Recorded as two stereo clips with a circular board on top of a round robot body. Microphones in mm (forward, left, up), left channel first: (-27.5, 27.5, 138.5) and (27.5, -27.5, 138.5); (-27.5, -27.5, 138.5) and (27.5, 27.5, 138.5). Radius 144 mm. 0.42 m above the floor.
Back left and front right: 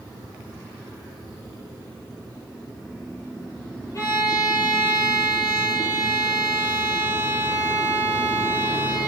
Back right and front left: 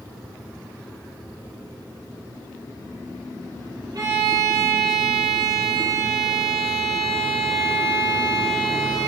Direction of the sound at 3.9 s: 85° left.